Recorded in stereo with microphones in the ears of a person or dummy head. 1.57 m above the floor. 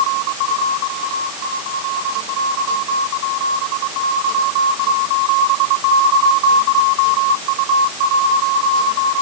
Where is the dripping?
No dripping in this recording.